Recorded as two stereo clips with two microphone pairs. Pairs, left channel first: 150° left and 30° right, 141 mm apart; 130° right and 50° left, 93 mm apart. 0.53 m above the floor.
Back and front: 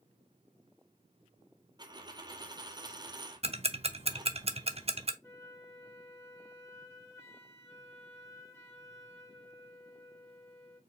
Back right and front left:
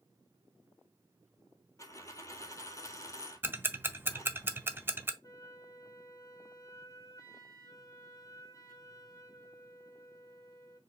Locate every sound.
1.8 s a dropped coin: 80° right, 0.8 m
3.4 s ticking: 10° right, 0.5 m
5.2 s a flute: 160° right, 1.6 m